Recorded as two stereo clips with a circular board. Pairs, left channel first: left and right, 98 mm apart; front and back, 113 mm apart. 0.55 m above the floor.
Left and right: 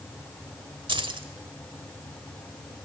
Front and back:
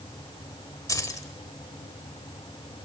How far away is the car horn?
I don't hear a car horn.